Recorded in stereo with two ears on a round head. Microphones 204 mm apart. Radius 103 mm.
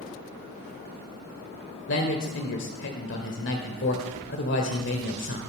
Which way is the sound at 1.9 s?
55° left (ahead or behind).